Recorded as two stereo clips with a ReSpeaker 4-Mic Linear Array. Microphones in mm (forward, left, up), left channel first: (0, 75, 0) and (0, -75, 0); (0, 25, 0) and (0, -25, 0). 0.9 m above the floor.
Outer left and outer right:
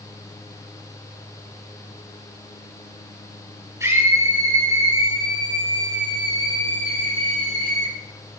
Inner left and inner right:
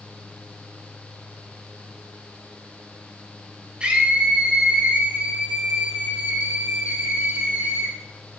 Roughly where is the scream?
Centre.